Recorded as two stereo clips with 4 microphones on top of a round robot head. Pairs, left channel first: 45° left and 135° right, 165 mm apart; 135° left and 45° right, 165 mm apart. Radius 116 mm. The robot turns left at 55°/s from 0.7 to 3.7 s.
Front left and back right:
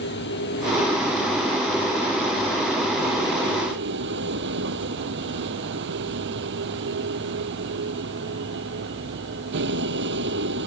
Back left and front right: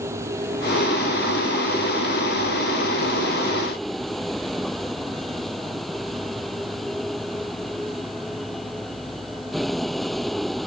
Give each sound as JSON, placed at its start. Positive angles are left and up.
{"t": 0.0, "sound": "a vehicle", "azimuth_deg": 30}